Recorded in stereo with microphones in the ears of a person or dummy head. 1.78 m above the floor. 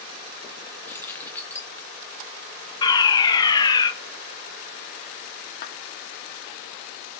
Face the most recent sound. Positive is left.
turn(degrees=50)  # may be behind; listen again after turning